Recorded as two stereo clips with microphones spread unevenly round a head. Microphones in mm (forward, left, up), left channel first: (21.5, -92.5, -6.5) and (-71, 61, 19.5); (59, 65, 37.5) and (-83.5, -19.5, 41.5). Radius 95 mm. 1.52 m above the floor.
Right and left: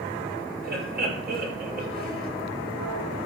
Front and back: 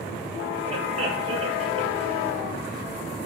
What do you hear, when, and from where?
0.6 s laughter: 155° left, 9 m